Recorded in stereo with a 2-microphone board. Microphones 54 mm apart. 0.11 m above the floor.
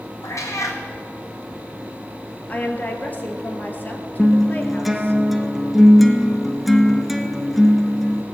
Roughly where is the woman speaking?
Left.